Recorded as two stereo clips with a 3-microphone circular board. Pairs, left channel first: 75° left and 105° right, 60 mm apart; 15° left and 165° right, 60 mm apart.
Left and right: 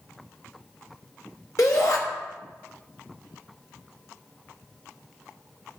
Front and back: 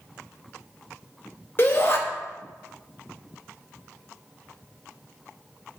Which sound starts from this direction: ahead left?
A shout, at 1.6 s.